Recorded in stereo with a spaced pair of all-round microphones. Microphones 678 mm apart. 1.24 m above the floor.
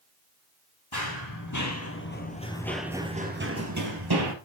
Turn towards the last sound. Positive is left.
turn(degrees=-40)  # may be behind; listen again after turning